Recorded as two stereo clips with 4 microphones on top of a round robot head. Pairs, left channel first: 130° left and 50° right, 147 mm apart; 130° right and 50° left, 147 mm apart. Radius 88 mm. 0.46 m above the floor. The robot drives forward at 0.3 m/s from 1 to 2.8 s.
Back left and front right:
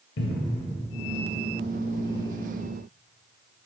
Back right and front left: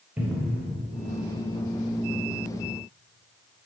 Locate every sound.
0.2 s a cupboard door: 130° left, 0.5 m